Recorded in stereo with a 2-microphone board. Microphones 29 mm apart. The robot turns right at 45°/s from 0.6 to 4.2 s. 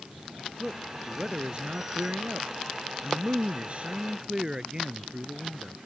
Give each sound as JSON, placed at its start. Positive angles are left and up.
{"t": 0.6, "sound": "a man speaking", "azimuth_deg": 175}